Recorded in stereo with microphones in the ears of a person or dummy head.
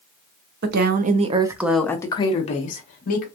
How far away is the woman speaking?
About 0.7 m.